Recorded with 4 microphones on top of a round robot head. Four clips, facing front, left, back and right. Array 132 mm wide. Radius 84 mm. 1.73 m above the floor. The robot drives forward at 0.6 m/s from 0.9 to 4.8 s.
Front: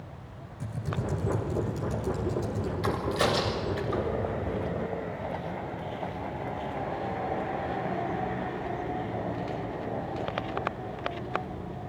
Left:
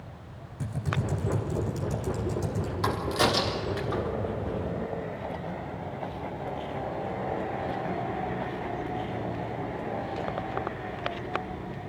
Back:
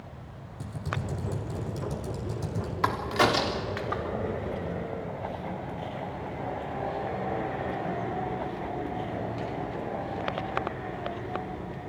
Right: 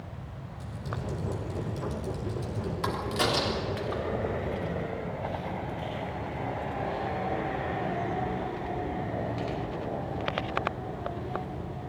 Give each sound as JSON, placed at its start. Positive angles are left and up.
{"t": 0.6, "sound": "typing on a keyboard", "azimuth_deg": 130, "distance_m": 3.0}
{"t": 2.8, "sound": "a crack", "azimuth_deg": 170, "distance_m": 3.5}